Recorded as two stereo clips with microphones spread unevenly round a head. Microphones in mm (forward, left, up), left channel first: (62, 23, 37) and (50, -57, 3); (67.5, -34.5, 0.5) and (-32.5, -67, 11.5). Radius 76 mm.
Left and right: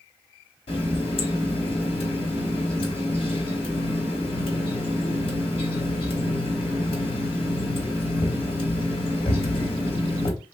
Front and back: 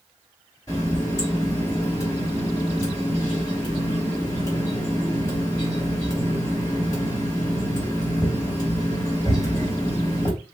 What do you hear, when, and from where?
0.7 s a running tap: 90° left, 0.9 m